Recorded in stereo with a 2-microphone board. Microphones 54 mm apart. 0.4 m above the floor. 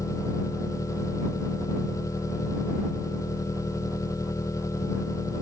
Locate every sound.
0.0 s an engine running: 85° left